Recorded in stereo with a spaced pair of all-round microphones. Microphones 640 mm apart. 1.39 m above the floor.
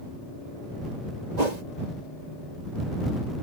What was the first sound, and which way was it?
A whoosh, 85° right.